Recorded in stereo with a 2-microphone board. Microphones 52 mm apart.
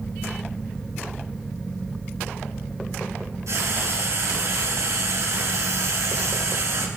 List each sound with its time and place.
3.5 s frying: 80° right, 3.5 m